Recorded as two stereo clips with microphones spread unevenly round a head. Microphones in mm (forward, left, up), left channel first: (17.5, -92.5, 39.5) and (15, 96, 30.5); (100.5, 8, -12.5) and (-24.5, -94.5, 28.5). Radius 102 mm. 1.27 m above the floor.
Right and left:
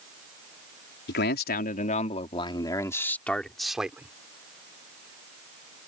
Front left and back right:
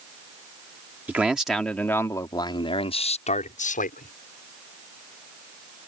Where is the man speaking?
60° right; by 4.1 s 10° left.